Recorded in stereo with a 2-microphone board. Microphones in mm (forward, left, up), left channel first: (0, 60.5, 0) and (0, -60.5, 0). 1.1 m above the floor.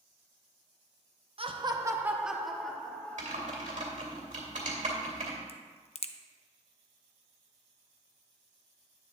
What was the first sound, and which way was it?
Laughter, 45° right (ahead or behind).